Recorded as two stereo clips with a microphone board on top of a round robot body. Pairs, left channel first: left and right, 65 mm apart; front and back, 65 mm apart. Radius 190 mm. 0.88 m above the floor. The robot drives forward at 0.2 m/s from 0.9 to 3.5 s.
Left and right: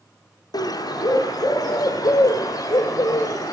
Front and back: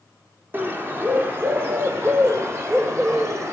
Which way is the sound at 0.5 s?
115° left.